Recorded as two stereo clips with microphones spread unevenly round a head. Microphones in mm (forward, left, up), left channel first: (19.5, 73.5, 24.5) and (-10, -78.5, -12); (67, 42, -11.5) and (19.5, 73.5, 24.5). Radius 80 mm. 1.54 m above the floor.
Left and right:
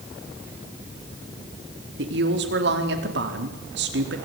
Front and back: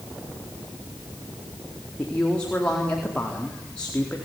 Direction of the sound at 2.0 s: 115° right.